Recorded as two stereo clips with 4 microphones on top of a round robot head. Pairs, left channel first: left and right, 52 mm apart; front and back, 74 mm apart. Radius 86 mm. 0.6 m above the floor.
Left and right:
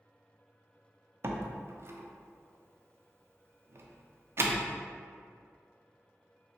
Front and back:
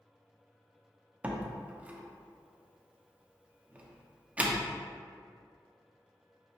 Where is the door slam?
110° right, 0.5 m.